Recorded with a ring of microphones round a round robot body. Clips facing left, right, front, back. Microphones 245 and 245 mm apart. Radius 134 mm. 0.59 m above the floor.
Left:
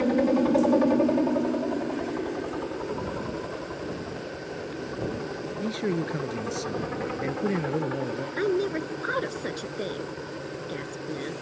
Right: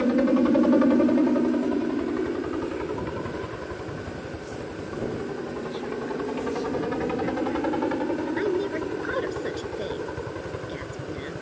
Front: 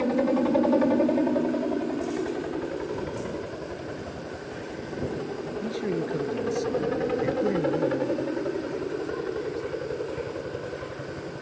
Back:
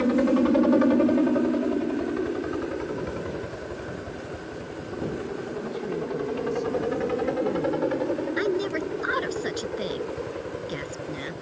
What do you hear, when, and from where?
0.0 s a helicopter: 145° right; by 11.4 s 85° right
5.6 s a man speaking: 65° left
8.4 s a woman speaking: 175° left